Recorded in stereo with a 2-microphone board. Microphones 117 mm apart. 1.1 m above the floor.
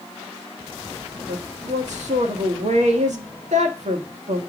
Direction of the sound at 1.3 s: 80° right.